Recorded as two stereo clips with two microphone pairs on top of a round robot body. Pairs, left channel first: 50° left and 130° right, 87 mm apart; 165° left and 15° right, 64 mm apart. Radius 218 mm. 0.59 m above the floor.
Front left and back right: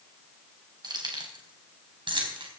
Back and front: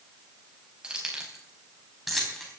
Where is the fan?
I don't hear a fan.